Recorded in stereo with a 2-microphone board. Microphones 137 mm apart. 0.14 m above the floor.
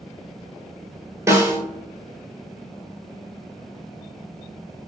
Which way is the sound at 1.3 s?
20° right (ahead or behind).